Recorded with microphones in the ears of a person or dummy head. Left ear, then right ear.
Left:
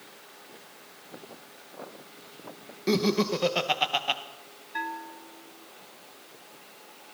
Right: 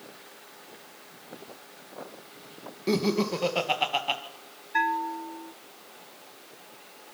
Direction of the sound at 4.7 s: 25° right (ahead or behind).